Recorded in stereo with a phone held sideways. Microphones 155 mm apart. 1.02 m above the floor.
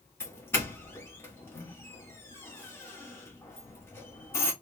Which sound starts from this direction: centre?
A doorbell, at 0.2 s.